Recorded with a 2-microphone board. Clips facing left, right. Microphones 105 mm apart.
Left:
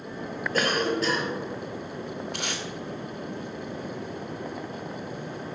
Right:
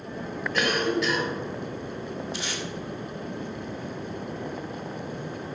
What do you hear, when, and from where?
0.5 s a cough: 40° left (ahead or behind), 2.5 m
2.3 s tape being pulled: 55° left (ahead or behind), 1.4 m